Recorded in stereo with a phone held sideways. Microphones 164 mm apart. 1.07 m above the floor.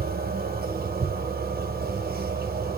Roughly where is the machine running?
Right.